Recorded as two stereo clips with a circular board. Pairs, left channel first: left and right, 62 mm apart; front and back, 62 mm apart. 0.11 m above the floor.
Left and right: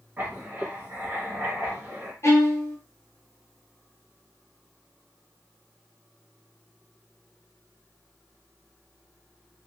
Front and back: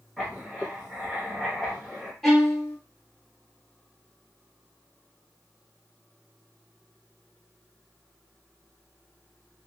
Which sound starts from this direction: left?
A violin, at 2.2 s.